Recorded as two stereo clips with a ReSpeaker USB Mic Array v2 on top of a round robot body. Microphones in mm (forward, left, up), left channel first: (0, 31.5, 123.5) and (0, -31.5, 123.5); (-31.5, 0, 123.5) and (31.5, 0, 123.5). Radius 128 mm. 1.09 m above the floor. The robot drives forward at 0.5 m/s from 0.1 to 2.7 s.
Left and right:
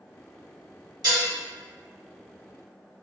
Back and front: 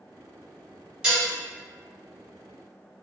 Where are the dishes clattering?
75° right, 1.6 m; by 1.3 s 80° right, 1.6 m.